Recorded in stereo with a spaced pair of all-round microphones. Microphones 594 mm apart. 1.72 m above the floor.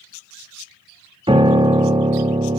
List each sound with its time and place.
1.3 s a piano: 10° right (ahead or behind), 0.6 m